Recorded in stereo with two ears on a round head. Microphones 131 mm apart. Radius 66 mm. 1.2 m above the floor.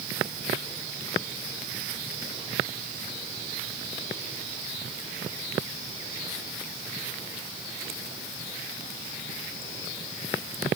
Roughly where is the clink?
I don't hear a clink.